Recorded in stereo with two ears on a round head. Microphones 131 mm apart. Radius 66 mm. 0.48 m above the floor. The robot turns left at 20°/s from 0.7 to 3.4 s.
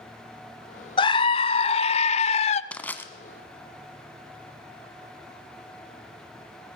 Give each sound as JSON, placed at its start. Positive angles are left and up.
{"t": 1.0, "sound": "a scream", "azimuth_deg": 130, "distance_m": 1.2}
{"t": 2.7, "sound": "crushing", "side_deg": 10, "distance_m": 1.8}